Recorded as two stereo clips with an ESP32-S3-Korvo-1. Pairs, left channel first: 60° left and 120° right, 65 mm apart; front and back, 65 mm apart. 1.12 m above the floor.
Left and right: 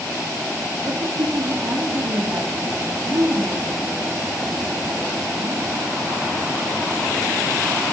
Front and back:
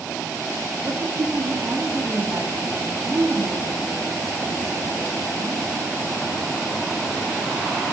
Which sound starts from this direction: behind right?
A woman speaking, at 0.8 s.